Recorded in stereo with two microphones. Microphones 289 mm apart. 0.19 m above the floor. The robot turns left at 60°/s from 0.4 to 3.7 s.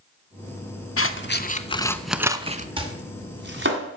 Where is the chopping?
15° right (ahead or behind), 1.8 m; by 3.8 s 45° right (ahead or behind), 1.8 m.